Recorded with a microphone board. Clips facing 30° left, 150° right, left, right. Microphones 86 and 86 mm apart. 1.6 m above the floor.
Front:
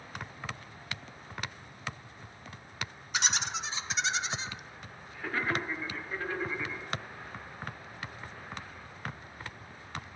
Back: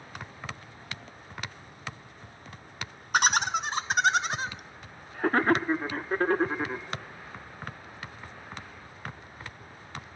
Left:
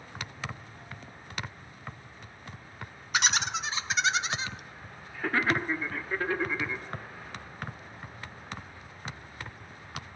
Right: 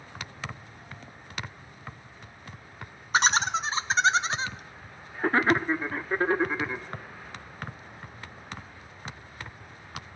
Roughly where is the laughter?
Behind right.